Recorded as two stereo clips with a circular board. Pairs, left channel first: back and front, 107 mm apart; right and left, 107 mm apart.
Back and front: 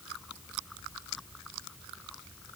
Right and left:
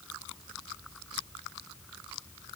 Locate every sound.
Only background noise.